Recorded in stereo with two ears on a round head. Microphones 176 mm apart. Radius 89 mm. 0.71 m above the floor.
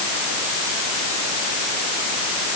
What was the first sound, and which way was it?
Only background noise.